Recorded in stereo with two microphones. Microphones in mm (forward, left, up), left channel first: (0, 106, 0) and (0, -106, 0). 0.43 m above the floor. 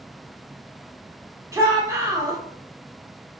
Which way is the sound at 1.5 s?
15° right (ahead or behind).